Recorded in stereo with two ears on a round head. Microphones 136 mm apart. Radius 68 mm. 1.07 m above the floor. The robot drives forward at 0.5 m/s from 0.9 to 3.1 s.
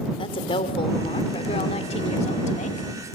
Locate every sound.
0.2 s a woman speaking: 35° left (ahead or behind), 3 m; by 2.9 s 50° left (ahead or behind), 2 m